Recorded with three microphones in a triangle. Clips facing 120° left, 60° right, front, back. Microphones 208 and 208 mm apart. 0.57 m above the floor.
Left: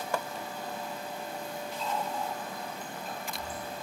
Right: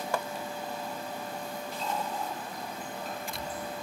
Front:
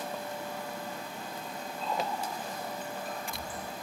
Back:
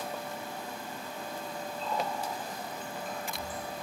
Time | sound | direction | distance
1.8 | a running tap | 10° right | 3 m